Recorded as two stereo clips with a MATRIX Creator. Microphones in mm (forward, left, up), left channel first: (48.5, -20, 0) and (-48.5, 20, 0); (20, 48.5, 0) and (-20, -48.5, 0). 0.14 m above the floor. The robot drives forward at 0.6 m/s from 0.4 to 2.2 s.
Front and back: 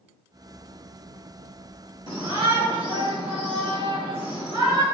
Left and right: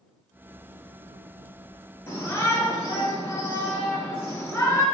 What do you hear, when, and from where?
2.1 s a shout: 130° left, 2.5 m; by 4.8 s 135° left, 2.5 m